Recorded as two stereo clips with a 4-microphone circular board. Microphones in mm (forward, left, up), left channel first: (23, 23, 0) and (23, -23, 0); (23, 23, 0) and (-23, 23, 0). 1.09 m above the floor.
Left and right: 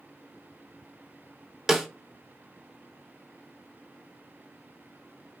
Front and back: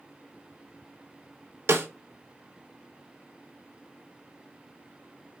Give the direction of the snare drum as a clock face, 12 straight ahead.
6 o'clock.